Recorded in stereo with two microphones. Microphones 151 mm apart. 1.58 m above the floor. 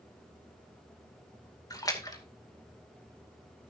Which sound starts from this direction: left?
A splash, at 1.7 s.